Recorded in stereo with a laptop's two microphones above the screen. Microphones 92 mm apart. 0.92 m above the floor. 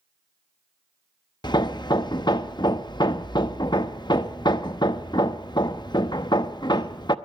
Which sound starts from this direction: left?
Hammering, at 1.4 s.